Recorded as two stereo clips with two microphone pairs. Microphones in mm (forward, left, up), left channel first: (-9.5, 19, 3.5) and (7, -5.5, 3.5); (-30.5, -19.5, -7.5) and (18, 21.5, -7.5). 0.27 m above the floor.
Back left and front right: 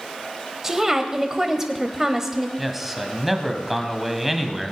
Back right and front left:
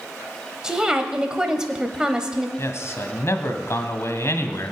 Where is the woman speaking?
20° right, 1.0 m.